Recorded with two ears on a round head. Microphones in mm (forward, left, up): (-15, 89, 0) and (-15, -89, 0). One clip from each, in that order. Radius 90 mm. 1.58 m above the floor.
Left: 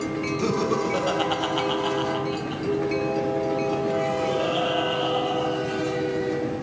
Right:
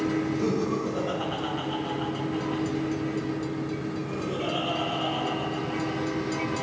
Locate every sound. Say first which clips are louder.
0.4 s laughter: left 4 dB; 35° left (ahead or behind), 0.8 m; by 6.6 s 55° left (ahead or behind), 3 m